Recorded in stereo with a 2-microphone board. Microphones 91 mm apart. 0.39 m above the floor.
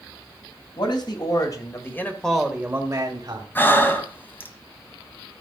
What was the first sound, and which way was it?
A man speaking, 60° left (ahead or behind).